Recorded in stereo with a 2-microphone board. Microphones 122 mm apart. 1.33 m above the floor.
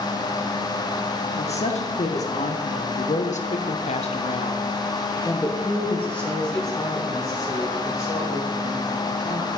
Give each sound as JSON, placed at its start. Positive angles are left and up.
{"t": 1.4, "sound": "a woman speaking", "side_deg": 55, "distance_m": 1.7}